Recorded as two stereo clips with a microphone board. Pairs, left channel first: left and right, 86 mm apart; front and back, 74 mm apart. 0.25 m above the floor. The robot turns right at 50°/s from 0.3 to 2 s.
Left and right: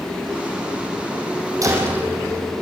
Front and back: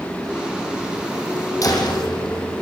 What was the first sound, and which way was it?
A door slam, 40° right.